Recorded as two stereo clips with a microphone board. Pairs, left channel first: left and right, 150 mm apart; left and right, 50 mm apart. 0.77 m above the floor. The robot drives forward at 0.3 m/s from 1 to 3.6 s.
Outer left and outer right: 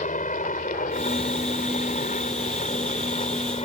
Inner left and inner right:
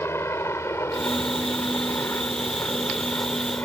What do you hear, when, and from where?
0.0 s a helicopter: 60° left (ahead or behind); by 3.7 s 45° left (ahead or behind)